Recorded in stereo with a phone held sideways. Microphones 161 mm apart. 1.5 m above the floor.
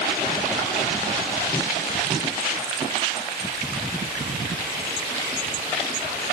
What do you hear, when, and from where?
Only background noise.